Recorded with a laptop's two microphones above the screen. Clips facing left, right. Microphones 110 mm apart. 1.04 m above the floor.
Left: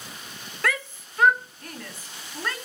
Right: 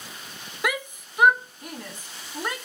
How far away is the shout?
About 0.6 m.